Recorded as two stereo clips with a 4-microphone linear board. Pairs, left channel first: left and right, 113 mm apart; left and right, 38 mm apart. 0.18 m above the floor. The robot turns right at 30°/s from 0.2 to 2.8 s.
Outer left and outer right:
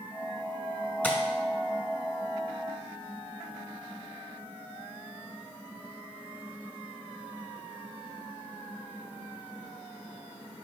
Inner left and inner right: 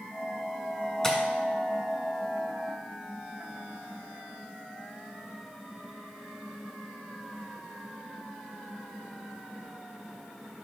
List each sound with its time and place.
1.0 s tapping: 15° left (ahead or behind), 1.2 m; by 1.2 s 10° left (ahead or behind), 1.2 m